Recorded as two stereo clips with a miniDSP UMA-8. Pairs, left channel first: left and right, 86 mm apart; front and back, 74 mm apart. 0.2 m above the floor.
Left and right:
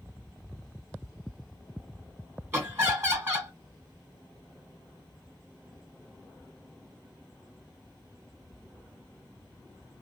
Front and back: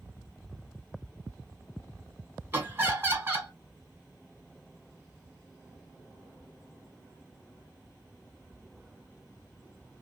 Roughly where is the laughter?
Behind right.